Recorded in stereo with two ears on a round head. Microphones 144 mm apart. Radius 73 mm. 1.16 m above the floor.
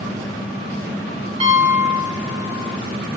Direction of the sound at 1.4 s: 40° right (ahead or behind).